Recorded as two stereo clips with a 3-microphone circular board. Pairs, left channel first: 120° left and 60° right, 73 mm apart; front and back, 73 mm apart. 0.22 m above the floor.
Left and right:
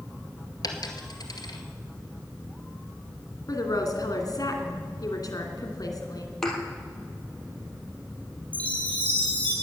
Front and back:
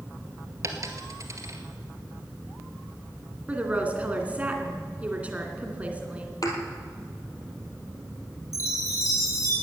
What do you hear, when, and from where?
0.6 s a dropped coin: 140° left, 1.9 m
3.5 s a woman speaking: 115° left, 2.5 m
6.4 s a thud: 35° left, 2.5 m
8.5 s a chime: 50° left, 7.5 m